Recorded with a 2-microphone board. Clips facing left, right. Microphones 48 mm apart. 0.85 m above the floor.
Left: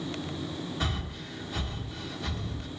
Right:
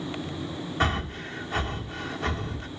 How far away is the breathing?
About 1.6 m.